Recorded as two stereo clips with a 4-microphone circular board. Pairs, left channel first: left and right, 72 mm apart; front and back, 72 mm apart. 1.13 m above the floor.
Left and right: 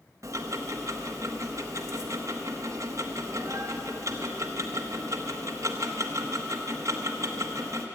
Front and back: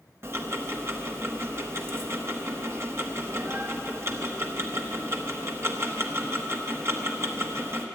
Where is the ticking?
130° right, 1.0 m.